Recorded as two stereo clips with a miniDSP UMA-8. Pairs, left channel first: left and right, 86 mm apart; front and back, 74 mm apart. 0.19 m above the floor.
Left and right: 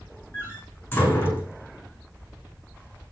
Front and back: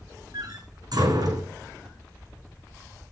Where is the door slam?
160° left, 8.5 m.